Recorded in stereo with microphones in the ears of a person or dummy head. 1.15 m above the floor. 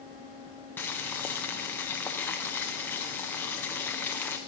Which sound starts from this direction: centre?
Boiling, at 0.8 s.